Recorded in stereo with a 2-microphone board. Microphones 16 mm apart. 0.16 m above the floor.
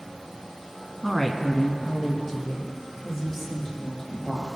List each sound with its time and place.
1.0 s a woman speaking: 20° left (ahead or behind), 1.4 m; by 4.5 s 30° left (ahead or behind), 4.5 m